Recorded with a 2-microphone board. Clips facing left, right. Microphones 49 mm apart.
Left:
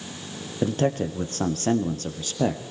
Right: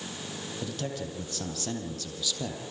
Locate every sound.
0.6 s a man speaking: 40° left (ahead or behind), 3 m